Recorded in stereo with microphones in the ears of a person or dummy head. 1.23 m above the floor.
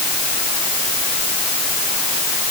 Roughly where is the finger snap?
No finger snap in this recording.